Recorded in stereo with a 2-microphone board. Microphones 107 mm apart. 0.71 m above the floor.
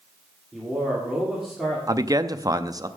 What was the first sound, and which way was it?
A man speaking, centre (ahead or behind).